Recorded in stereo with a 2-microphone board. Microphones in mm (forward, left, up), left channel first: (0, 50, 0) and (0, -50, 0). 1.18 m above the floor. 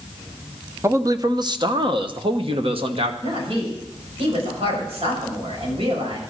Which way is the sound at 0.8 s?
30° right (ahead or behind).